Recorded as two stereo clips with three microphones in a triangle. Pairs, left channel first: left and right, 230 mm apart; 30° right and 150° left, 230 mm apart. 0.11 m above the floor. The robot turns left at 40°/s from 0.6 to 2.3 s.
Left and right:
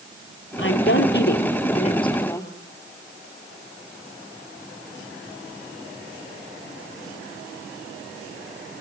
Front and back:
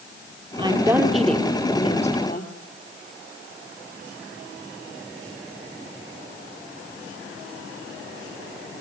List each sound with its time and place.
0.6 s a woman speaking: 85° left, 3 m; by 2.5 s 15° left, 3 m